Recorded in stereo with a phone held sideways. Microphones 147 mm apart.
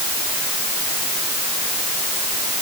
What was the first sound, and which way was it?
Only background noise.